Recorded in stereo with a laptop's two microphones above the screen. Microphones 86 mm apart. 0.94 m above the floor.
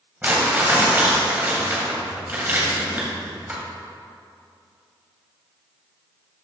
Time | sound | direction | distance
0.2 | crumpling | 25° right (ahead or behind) | 2.5 m